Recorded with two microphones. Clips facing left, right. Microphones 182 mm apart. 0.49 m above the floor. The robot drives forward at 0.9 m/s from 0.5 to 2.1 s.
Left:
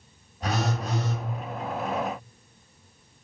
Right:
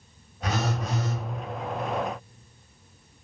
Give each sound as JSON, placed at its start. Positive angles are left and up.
{"t": 0.4, "sound": "a phone buzzing", "side_deg": 35, "distance_m": 1.1}